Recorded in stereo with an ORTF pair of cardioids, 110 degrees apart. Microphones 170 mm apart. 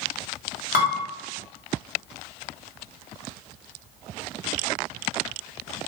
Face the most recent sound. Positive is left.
turn(degrees=60)